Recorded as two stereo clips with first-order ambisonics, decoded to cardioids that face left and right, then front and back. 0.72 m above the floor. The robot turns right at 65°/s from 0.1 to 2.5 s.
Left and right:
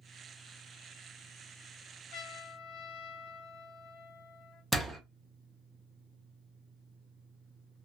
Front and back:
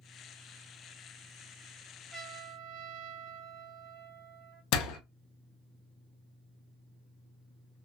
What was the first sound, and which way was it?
A trumpet, 105° left.